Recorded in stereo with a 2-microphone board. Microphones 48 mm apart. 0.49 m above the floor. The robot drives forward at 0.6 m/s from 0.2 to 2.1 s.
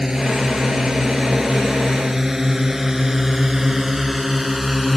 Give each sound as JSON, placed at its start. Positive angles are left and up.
{"t": 0.0, "sound": "a drone", "side_deg": -10}